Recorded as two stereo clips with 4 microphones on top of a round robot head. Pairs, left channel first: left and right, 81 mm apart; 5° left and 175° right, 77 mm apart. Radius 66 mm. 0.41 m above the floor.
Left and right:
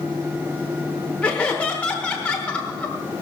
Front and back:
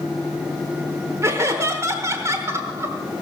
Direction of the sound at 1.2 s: 160° left.